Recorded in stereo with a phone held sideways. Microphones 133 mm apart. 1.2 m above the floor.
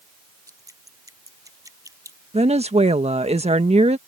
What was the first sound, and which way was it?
Dripping, 25° right (ahead or behind).